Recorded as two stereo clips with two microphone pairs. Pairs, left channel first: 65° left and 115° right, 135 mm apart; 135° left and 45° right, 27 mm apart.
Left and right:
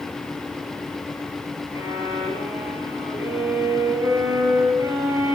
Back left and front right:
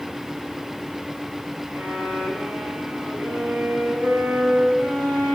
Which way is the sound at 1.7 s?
55° right.